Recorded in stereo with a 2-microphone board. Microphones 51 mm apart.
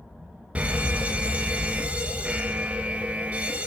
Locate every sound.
0.6 s a fire alarm: 25° right (ahead or behind), 1.4 m